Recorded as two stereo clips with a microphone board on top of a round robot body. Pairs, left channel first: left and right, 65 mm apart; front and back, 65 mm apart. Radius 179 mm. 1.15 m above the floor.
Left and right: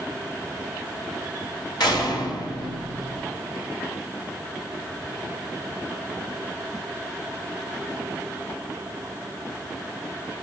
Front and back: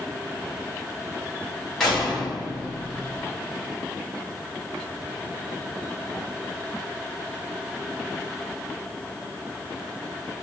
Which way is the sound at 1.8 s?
80° left.